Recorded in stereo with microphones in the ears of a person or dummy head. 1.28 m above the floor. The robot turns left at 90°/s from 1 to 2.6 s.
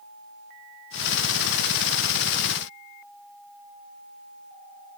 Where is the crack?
I don't hear a crack.